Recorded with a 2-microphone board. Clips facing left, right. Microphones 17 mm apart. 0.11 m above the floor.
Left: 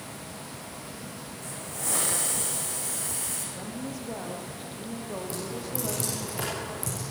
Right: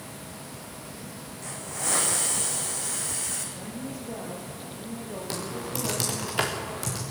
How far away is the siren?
I don't hear a siren.